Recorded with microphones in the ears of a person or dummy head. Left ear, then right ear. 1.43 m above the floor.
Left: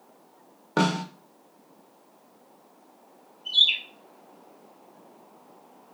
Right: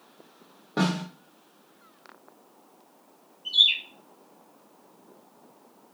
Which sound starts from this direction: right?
A bird, at 3.5 s.